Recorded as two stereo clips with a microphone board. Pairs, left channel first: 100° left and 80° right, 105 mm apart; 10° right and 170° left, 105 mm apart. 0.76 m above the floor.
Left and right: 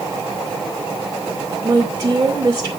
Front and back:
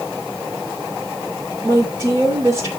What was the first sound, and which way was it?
A woman speaking, 145° right.